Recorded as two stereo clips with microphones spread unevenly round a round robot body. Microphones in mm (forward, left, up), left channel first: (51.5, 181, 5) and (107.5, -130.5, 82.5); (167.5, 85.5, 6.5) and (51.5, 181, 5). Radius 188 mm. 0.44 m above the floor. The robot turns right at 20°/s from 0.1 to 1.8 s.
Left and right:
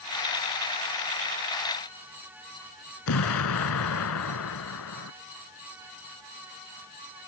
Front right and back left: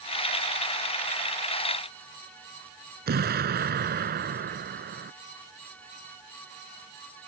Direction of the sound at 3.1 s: 145° left.